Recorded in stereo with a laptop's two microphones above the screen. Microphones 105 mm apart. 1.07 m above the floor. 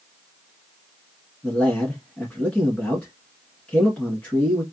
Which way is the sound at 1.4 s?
10° left (ahead or behind).